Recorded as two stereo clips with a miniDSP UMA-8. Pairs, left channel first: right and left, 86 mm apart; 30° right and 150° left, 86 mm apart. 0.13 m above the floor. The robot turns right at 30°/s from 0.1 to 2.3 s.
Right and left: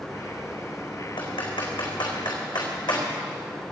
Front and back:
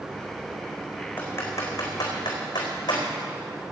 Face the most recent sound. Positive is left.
turn(degrees=-65)